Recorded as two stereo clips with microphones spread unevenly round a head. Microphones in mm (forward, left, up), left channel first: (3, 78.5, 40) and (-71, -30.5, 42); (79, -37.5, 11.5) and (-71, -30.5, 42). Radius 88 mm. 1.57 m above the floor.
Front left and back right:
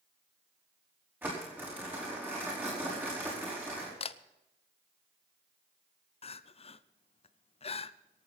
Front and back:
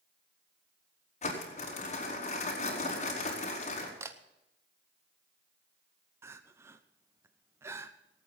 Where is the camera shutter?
100° left, 0.7 m.